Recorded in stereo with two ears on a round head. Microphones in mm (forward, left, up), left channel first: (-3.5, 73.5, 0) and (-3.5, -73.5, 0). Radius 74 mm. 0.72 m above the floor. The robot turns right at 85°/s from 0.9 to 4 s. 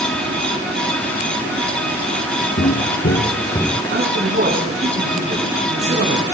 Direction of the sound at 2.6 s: 45° left (ahead or behind).